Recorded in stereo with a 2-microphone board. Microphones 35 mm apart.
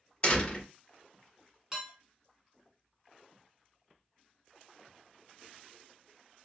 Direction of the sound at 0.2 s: 35° left (ahead or behind).